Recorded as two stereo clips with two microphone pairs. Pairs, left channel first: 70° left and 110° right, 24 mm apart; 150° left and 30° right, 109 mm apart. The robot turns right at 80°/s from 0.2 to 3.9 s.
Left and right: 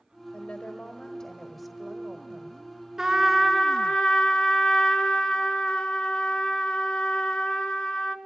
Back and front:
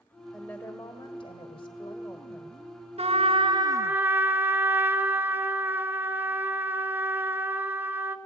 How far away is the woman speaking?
About 1.4 m.